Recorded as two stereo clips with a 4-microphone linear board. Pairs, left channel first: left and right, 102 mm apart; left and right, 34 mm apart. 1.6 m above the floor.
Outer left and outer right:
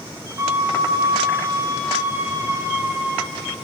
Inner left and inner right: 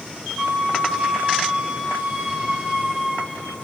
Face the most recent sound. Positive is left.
turn(degrees=-20)  # may be behind; listen again after turning